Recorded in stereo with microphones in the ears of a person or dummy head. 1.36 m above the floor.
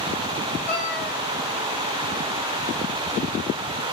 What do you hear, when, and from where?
0.7 s a cat meowing: 50° left (ahead or behind), 2.5 m